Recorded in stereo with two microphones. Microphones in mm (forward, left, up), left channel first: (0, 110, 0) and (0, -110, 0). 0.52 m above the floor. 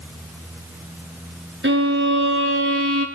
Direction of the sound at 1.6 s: 60° right (ahead or behind).